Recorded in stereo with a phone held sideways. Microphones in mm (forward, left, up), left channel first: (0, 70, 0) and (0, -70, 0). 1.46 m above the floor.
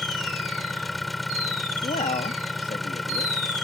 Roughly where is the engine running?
Centre.